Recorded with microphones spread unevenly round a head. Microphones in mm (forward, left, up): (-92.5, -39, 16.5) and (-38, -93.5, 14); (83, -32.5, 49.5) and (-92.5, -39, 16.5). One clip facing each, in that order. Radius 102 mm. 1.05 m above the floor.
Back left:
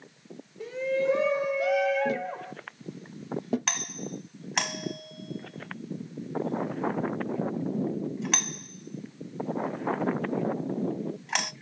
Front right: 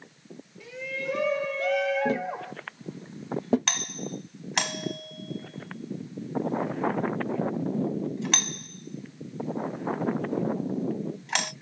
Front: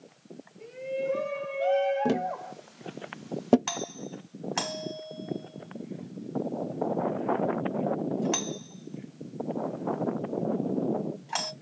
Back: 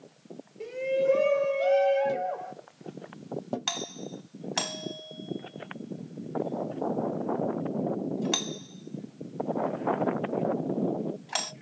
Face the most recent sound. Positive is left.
turn(degrees=-135)